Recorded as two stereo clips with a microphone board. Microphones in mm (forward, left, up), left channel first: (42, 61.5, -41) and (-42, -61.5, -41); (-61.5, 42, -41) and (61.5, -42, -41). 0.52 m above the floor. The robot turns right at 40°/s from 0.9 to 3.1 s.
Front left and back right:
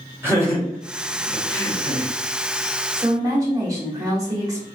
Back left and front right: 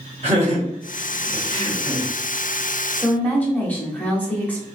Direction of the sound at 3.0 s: 155° right.